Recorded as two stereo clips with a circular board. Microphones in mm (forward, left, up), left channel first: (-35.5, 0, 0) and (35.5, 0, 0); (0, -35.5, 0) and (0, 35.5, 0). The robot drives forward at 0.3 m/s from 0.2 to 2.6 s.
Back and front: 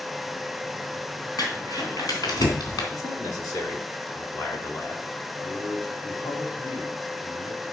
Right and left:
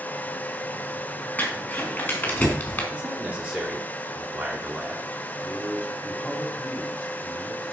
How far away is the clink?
No clink in this recording.